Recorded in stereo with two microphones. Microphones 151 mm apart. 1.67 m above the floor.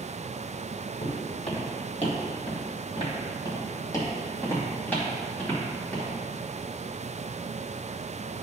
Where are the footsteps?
50° left (ahead or behind), 2.5 m; by 6.1 s 5° left (ahead or behind), 4 m.